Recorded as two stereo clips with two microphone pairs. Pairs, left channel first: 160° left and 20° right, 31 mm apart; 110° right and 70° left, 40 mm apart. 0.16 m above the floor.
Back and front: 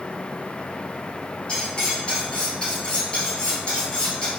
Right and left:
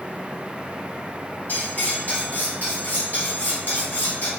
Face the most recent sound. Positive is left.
turn(degrees=-145)